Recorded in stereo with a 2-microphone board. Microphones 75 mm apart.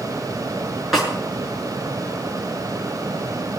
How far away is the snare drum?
About 7 m.